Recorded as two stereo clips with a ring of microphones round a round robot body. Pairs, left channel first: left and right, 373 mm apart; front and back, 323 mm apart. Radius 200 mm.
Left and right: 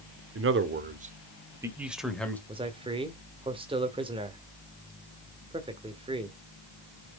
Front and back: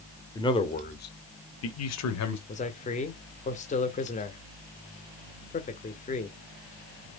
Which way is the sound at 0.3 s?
70° right.